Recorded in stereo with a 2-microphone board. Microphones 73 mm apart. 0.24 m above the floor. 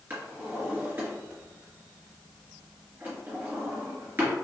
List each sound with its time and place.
0.1 s a drawer: 30° right (ahead or behind), 1.5 m